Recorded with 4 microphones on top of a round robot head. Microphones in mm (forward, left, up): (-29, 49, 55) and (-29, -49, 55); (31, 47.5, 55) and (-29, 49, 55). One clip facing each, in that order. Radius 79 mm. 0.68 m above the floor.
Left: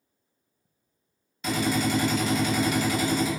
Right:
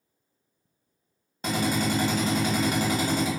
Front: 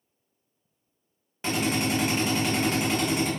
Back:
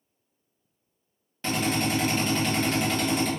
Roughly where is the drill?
Right.